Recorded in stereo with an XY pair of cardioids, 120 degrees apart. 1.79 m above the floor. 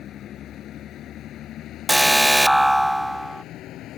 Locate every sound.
0.0 s a vehicle: 60° left; by 4.0 s 70° left
1.9 s an alarm: 5° right